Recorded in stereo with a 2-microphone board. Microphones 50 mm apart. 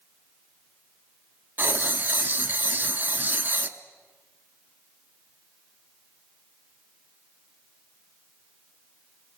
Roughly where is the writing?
Right.